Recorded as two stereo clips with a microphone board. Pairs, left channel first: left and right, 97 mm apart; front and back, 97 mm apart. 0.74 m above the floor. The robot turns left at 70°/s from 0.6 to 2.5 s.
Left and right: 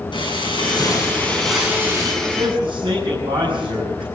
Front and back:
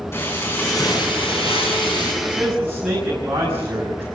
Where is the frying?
65° left, 7.5 m; by 2.1 s 45° right, 7.5 m.